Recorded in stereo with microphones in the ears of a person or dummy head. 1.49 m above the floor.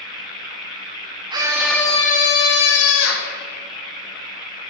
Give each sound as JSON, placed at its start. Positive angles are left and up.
{"t": 1.3, "sound": "a scream", "side_deg": -25, "distance_m": 0.8}